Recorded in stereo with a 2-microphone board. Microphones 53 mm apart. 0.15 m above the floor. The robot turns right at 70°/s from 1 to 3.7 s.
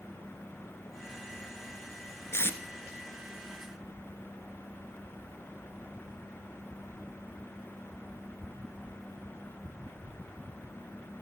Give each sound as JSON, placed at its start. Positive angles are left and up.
{"t": 2.3, "sound": "tape being pulled", "side_deg": 55, "distance_m": 1.0}